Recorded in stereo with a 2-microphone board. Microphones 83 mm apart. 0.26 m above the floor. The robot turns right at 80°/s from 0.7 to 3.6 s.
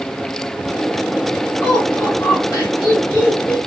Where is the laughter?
5° left, 2 m; by 3.6 s 165° left, 2 m.